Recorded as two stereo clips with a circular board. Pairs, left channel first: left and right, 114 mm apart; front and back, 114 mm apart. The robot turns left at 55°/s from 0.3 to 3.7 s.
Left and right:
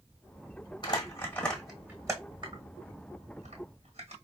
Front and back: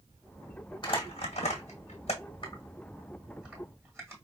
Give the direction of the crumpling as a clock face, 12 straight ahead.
10 o'clock.